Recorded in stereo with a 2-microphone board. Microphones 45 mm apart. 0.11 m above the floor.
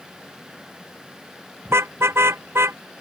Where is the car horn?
80° right; by 2.8 s 75° right (ahead or behind).